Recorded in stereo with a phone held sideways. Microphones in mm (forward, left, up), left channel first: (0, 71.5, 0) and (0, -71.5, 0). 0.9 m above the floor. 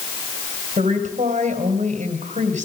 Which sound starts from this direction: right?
A woman speaking, at 0.8 s.